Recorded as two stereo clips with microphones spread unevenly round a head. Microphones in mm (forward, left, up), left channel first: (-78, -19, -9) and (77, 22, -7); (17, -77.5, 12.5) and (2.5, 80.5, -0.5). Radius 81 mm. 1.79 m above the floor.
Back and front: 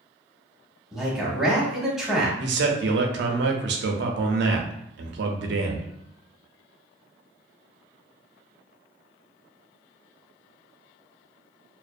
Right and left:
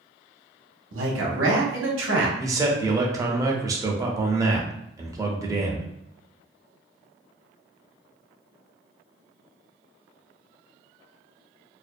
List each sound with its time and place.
0.9 s a man speaking: 100° left, 0.8 m
2.4 s a man speaking: 25° left, 0.5 m